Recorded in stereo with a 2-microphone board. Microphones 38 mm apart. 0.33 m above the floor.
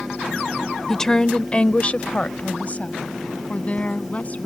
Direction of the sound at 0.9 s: 10° left (ahead or behind).